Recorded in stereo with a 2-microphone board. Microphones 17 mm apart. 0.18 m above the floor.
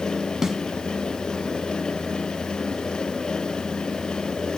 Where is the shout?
No shout in this recording.